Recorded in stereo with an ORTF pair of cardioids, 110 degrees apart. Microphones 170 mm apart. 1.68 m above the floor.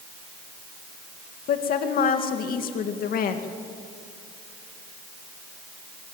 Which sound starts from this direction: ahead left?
A woman speaking, at 1.5 s.